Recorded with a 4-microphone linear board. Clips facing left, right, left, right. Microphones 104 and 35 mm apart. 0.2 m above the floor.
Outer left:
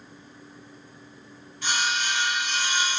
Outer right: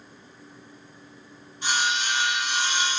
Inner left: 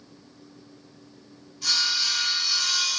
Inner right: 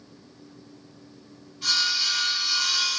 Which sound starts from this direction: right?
Sawing, at 1.6 s.